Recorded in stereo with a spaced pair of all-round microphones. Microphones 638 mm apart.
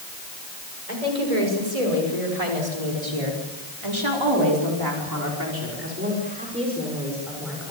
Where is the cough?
I don't hear a cough.